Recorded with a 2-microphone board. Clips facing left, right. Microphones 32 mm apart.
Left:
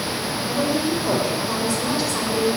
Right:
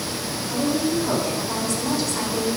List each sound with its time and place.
0.5 s a woman speaking: 30° left (ahead or behind), 6.5 m; by 2.6 s 20° left (ahead or behind), 7.5 m